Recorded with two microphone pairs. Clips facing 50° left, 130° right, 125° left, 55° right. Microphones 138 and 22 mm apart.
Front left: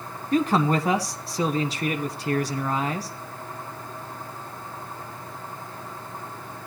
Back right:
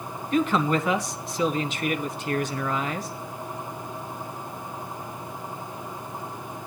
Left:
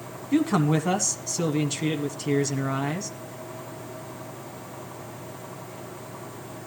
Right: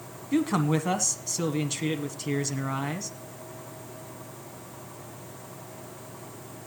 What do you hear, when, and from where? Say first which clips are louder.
0.3 s a man speaking: front left 1 dB, left 3 dB; 40° left, 1.2 m